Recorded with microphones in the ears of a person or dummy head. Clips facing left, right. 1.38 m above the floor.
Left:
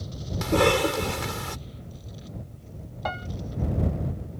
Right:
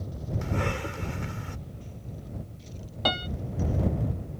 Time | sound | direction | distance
0.4 | a cough | 90° left | ?
3.0 | a piano | 45° right (ahead or behind) | ?